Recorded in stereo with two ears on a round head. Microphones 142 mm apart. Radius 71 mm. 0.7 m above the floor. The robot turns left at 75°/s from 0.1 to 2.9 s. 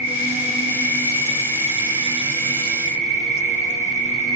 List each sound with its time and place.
0.0 s an insect: 115° left, 1.7 m; by 4.3 s 95° right, 1.7 m